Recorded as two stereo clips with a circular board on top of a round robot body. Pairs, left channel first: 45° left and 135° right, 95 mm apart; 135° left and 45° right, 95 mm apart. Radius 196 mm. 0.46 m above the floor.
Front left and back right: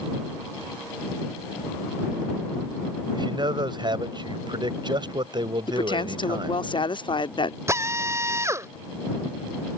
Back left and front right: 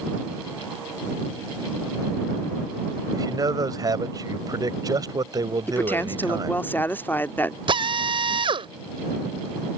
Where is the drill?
75° right.